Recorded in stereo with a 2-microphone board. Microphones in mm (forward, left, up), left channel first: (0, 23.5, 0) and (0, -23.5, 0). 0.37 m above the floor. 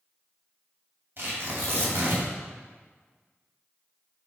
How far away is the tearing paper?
About 2.5 m.